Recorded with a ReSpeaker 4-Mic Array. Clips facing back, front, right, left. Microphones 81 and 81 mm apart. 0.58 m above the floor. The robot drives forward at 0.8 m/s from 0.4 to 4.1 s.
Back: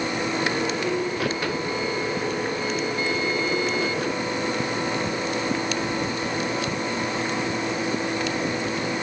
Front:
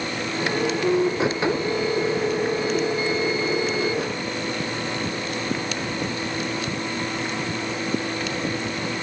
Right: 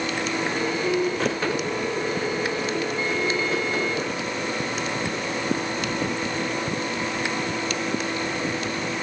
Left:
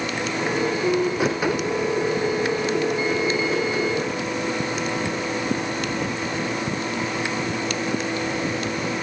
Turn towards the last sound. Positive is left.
No sound to turn to.